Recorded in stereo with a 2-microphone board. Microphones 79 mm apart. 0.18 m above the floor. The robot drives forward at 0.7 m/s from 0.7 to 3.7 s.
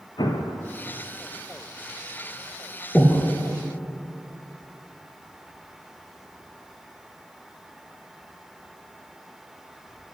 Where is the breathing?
10° left (ahead or behind), 1.2 m.